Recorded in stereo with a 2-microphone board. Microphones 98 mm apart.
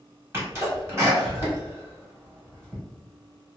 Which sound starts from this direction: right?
A sneeze, at 0.3 s.